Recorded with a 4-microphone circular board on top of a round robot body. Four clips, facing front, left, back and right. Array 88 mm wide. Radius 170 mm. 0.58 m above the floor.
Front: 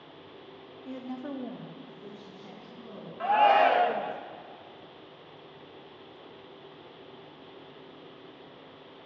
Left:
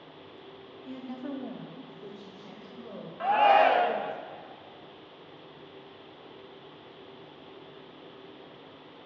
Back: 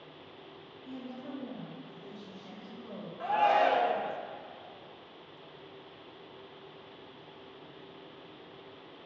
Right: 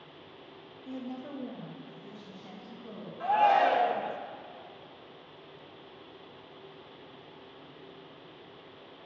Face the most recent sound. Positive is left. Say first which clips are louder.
# left 3 dB, front 5 dB
turn(degrees=50)